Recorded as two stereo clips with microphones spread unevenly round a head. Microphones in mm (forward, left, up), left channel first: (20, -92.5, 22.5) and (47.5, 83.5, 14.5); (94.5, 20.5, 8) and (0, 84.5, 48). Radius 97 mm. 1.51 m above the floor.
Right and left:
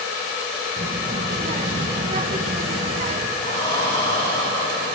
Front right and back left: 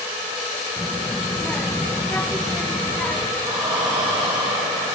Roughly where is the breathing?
Behind.